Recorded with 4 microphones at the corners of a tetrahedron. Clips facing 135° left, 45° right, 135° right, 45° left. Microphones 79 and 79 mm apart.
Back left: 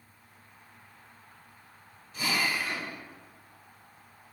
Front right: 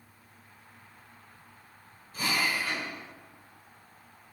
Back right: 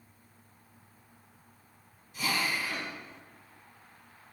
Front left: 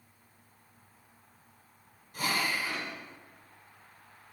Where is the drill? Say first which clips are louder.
Even, even; 5° left, 5.5 m.